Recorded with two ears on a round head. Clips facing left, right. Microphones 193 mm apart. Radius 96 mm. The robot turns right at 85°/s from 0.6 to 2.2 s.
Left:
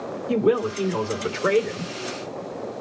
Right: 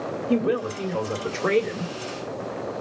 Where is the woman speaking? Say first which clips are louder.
Left 3 dB; 90° left, 2.5 m; by 1.9 s 160° right, 2.5 m.